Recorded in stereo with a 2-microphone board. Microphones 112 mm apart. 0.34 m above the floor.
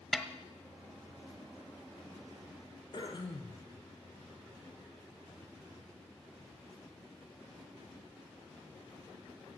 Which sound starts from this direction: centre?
A snare drum, at 0.1 s.